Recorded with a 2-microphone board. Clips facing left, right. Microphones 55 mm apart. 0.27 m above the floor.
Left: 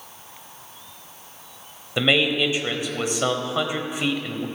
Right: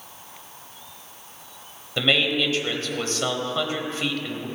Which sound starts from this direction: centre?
A man speaking, at 2.0 s.